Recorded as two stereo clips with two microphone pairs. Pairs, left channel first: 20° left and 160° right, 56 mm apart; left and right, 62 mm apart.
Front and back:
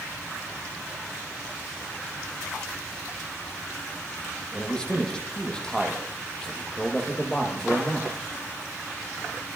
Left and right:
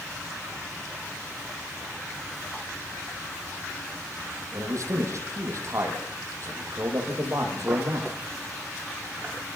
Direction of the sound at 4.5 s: 60° right.